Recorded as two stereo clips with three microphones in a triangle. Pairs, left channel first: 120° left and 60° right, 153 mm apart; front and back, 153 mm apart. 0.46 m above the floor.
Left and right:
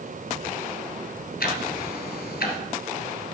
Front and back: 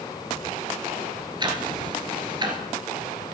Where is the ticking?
120° left, 1.7 m.